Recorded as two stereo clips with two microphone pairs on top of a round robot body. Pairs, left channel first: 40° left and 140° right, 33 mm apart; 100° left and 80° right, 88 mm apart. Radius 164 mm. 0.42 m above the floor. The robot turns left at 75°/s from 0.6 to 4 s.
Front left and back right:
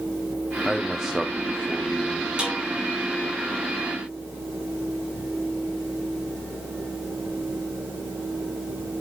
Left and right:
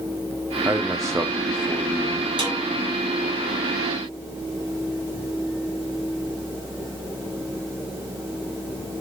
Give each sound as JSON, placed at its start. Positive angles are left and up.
{"t": 0.7, "sound": "a man speaking", "azimuth_deg": -50, "distance_m": 1.1}
{"t": 2.4, "sound": "a snare drum", "azimuth_deg": -80, "distance_m": 5.5}